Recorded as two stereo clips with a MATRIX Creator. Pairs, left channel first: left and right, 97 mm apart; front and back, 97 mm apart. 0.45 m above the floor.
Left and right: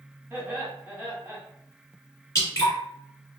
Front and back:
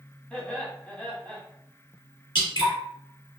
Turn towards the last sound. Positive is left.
turn(degrees=35)